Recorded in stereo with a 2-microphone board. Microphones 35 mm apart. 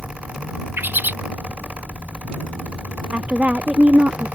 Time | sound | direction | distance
0.8 | a bird | 70° right (ahead or behind) | ?
3.1 | a woman speaking | 45° right (ahead or behind) | ?